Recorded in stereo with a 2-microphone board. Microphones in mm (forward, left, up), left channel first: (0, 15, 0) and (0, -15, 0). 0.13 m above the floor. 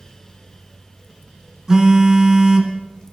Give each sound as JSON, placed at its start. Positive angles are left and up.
{"t": 1.7, "sound": "a phone buzzing", "side_deg": -20, "distance_m": 1.9}